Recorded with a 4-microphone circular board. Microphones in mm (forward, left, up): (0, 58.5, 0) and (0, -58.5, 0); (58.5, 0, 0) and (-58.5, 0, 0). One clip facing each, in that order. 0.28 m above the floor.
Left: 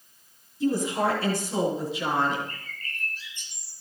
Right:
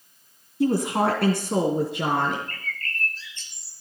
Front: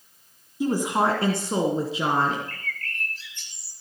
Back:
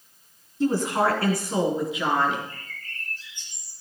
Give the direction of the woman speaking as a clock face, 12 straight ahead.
3 o'clock.